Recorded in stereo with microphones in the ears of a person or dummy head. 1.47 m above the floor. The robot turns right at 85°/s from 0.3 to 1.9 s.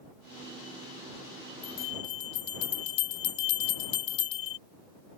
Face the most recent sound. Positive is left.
turn(degrees=30)  # may be behind; listen again after turning